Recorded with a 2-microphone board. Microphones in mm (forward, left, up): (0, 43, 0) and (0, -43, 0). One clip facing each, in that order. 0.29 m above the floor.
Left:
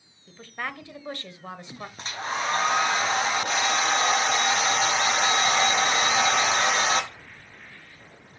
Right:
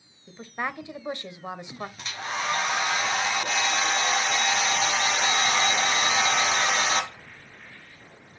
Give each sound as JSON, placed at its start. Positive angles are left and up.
{"t": 0.3, "sound": "a woman speaking", "side_deg": -20, "distance_m": 0.9}
{"t": 2.0, "sound": "a hair dryer", "side_deg": 35, "distance_m": 2.5}